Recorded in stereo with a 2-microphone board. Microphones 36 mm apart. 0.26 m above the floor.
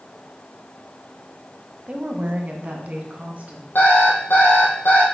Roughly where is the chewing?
No chewing in this recording.